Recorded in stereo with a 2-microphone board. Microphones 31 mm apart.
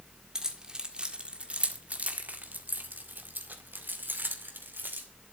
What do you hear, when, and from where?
0.3 s keys jangling: 20° right (ahead or behind), 2 m; by 5.1 s 80° right, 2.5 m